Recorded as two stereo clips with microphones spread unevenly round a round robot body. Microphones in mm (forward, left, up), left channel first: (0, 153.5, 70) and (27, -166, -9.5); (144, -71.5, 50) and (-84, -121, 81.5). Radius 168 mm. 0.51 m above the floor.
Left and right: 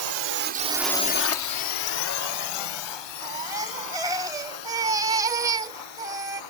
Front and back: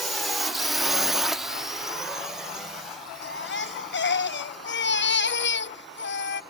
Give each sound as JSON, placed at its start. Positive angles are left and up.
{"t": 0.0, "sound": "a drone", "azimuth_deg": -75}
{"t": 3.2, "sound": "a baby crying", "azimuth_deg": -15}